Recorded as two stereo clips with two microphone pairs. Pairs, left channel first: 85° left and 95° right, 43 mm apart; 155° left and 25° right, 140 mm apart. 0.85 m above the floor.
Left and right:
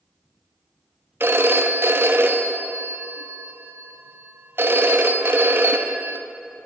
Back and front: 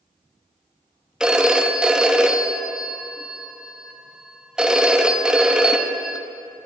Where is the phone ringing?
110° right, 0.6 m.